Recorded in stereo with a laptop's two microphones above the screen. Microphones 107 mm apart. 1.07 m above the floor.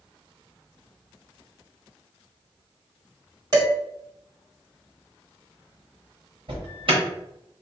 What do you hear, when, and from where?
3.5 s dishes clattering: 35° right (ahead or behind), 1.7 m
6.5 s an alarm: 55° right (ahead or behind), 0.9 m